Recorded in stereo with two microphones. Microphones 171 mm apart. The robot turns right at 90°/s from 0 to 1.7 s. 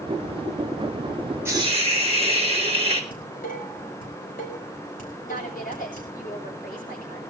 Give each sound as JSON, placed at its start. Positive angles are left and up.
{"t": 1.4, "sound": "a hiss", "side_deg": -15, "distance_m": 2.5}
{"t": 3.1, "sound": "dishes clattering", "side_deg": 55, "distance_m": 5.0}
{"t": 5.2, "sound": "a woman speaking", "side_deg": 55, "distance_m": 8.5}